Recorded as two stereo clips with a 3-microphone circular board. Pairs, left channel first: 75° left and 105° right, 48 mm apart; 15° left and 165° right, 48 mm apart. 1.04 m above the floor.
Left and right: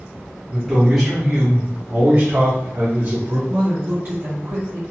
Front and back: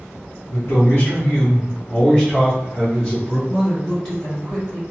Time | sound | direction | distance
0.5 | a man speaking | 5° right | 0.9 m
3.5 | a woman speaking | 55° right | 1.8 m